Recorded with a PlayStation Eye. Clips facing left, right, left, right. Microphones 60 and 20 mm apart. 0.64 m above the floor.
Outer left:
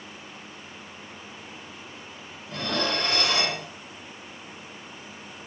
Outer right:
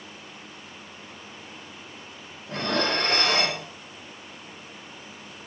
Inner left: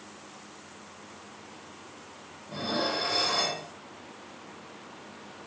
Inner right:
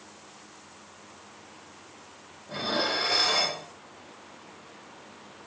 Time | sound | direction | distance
2.5 | dishes clattering | 35° right (ahead or behind) | 0.6 m